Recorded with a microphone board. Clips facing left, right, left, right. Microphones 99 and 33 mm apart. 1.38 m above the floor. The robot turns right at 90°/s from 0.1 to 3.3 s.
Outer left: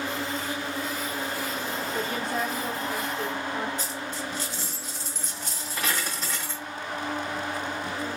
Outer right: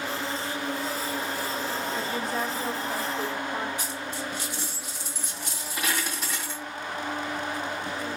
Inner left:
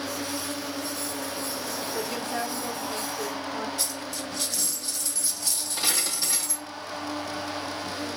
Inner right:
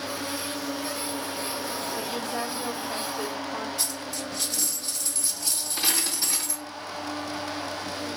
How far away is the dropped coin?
About 2.5 m.